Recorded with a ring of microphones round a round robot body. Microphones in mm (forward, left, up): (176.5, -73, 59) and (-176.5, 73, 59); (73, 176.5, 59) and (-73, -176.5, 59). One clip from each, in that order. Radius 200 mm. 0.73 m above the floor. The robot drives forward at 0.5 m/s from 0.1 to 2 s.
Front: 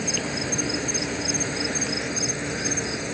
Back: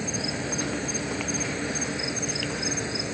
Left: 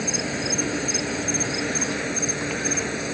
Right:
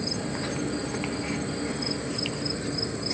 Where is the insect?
55° left.